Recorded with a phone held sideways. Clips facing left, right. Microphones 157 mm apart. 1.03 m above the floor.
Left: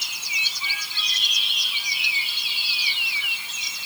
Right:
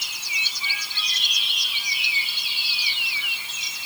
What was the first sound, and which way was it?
Only background noise.